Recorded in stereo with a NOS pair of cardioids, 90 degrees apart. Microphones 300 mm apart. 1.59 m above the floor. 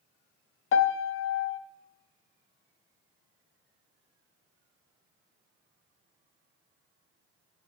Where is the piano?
45° left, 0.5 m.